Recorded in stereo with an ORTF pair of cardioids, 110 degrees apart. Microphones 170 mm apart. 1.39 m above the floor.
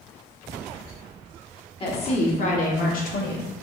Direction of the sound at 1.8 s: 35° left.